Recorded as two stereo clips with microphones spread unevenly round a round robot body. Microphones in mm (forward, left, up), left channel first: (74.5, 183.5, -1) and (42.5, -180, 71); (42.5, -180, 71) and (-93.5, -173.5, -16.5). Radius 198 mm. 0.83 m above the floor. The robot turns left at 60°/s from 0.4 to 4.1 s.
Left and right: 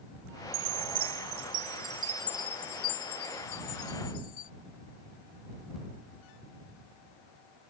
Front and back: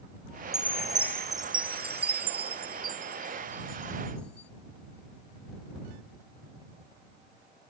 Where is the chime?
90° right; by 4.5 s 55° left.